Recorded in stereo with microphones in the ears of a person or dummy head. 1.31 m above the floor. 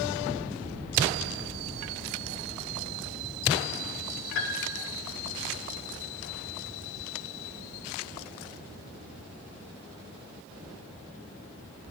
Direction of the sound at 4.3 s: 65° left (ahead or behind).